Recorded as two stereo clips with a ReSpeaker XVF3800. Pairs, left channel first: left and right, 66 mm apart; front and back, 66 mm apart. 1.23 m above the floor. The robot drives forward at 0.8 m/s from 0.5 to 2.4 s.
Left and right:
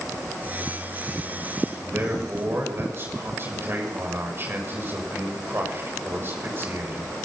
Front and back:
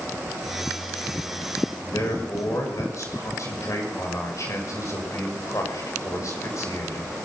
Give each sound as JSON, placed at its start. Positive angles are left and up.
{"t": 1.9, "sound": "a man speaking", "azimuth_deg": -35, "distance_m": 7.0}